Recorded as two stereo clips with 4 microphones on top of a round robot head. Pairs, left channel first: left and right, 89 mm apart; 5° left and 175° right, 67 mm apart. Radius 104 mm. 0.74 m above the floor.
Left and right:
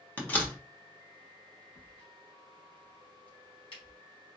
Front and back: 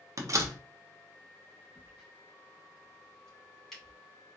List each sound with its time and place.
0.2 s a door slam: 160° left, 1.0 m
1.8 s a crack: 90° left, 3 m